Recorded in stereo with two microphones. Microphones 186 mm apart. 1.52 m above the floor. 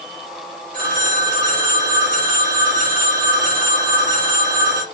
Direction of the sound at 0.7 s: 65° left (ahead or behind).